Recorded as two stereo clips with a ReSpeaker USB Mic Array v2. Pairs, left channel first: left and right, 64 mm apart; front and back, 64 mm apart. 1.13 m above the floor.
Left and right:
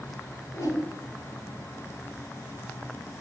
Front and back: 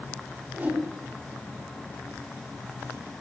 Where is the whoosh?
110° left, 4.5 m.